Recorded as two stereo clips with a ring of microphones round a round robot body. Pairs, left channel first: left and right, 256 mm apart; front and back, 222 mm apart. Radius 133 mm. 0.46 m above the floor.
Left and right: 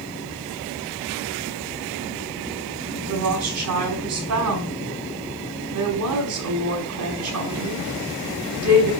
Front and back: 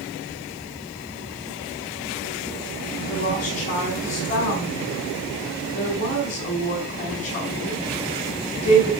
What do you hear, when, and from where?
3.1 s a woman speaking: 65° right, 5.5 m